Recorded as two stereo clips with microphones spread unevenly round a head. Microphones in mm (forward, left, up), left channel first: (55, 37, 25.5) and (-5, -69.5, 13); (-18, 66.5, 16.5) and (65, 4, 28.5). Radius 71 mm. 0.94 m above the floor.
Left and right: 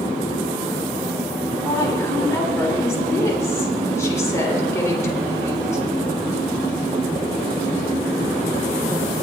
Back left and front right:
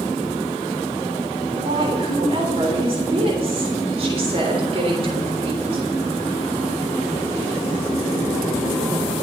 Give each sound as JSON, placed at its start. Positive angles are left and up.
{"t": 1.5, "sound": "a woman speaking", "azimuth_deg": -5, "distance_m": 3.5}